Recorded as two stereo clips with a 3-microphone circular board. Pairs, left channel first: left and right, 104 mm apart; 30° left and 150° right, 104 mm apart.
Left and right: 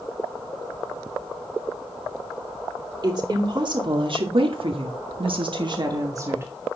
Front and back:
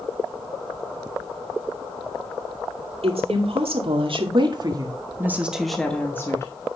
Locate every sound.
3.0 s a woman speaking: 135° right, 2.5 m; by 6.5 s 25° right, 1.7 m